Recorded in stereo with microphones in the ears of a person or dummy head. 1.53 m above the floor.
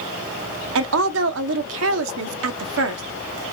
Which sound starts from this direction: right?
A woman speaking, at 0.8 s.